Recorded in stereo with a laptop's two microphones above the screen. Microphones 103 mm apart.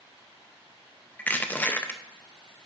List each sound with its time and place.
1.2 s crushing: 15° left (ahead or behind), 0.6 m